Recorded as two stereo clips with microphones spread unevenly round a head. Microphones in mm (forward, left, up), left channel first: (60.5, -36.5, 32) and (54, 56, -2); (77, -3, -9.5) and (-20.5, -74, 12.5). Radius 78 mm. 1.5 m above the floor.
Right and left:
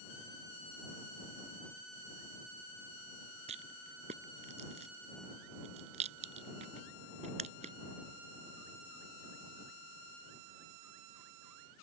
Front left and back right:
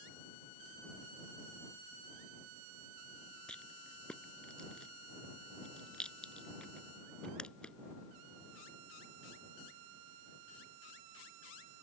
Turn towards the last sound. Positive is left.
turn(degrees=125)